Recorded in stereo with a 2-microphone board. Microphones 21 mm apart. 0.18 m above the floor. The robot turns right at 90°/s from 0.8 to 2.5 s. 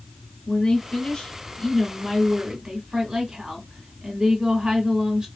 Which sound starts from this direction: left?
A woman speaking, at 0.5 s.